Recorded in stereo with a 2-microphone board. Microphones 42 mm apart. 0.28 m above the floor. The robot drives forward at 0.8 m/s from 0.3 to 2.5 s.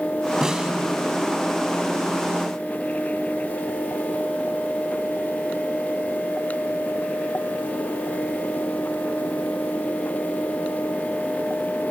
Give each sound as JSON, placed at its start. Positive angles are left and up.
{"t": 0.4, "sound": "a snare drum", "side_deg": -15, "distance_m": 1.5}